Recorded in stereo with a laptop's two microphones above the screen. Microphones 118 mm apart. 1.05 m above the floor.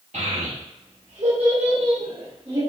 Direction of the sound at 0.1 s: 80° right.